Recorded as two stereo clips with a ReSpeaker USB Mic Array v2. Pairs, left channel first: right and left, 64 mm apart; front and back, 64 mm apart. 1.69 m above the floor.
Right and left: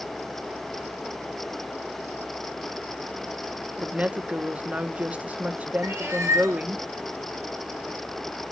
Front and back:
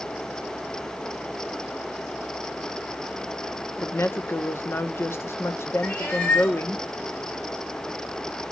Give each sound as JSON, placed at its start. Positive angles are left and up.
{"t": 3.8, "sound": "a woman speaking", "azimuth_deg": 30, "distance_m": 0.6}
{"t": 5.8, "sound": "a cat meowing", "azimuth_deg": 50, "distance_m": 2.5}